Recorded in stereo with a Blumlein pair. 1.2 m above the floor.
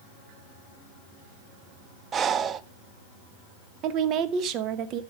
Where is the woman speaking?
35° right, 1.0 m.